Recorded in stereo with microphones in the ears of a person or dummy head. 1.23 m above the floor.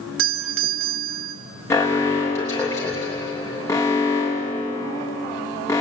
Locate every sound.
0.2 s a doorbell: 65° right (ahead or behind), 2.5 m
1.7 s an alarm: 10° left (ahead or behind), 3 m